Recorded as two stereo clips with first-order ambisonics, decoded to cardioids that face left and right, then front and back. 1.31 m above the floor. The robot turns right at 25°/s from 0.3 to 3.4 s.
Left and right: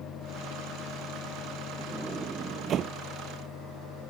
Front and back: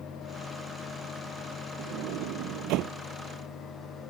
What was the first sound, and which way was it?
A sliding door, 170° right.